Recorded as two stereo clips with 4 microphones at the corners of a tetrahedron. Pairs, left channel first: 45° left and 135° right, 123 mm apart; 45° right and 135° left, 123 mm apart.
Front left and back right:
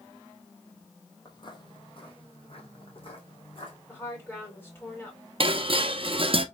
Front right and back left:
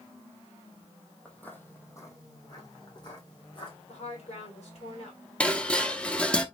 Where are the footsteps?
30° left, 0.8 m; by 3.8 s 5° left, 1.9 m.